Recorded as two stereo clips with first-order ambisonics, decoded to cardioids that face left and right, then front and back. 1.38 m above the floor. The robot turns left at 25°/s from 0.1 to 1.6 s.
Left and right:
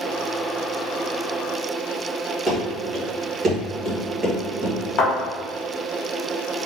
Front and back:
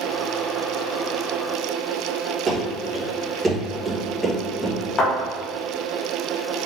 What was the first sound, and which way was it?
Running footsteps, 170° right.